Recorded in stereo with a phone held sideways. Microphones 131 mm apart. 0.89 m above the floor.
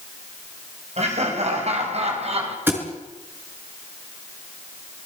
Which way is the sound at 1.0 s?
60° right (ahead or behind).